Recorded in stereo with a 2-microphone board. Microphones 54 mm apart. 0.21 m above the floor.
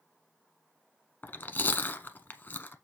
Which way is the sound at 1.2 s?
35° left (ahead or behind).